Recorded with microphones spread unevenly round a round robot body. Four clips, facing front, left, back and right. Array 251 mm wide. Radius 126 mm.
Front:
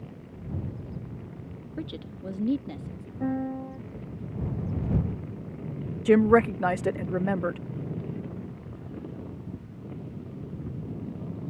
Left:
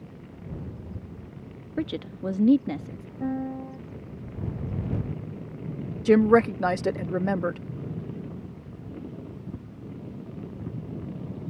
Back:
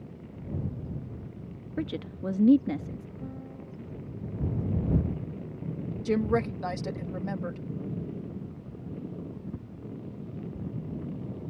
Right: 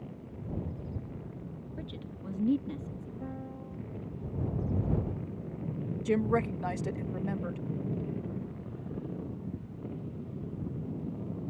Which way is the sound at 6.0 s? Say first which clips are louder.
Left 11 dB, front 8 dB; 60° left.